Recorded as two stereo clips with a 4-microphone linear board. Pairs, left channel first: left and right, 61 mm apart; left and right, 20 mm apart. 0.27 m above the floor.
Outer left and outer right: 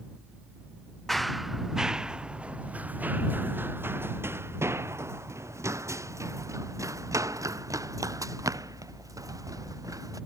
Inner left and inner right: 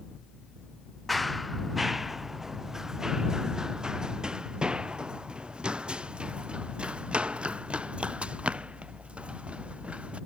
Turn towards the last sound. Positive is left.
turn(degrees=-65)  # may be behind; listen again after turning